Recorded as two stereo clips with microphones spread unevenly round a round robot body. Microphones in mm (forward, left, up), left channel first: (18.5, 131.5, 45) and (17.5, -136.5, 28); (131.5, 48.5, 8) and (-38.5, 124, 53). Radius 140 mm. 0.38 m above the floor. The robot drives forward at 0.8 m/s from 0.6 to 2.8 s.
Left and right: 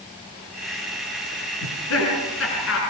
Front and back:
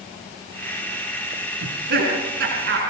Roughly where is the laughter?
Behind left.